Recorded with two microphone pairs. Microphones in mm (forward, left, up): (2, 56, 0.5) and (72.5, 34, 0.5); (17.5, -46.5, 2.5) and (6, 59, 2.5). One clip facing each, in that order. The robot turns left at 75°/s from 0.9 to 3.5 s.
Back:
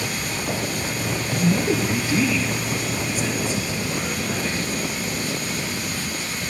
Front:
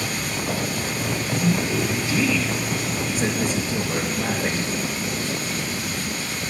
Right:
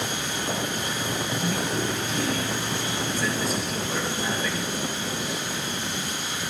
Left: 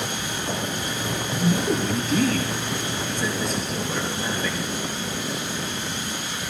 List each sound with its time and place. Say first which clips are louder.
1.4 s a man speaking: back 3 dB, left 8 dB; 160° left, 3.5 m; by 4.7 s 5° left, 3.5 m